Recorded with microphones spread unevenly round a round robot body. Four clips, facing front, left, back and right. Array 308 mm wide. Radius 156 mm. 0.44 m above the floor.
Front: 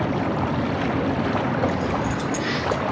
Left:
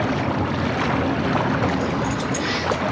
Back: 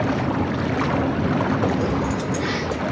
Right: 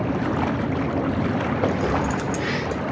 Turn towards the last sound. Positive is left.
turn(degrees=-110)